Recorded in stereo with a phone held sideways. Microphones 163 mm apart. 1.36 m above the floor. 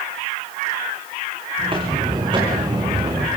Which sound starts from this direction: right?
Footsteps, at 1.6 s.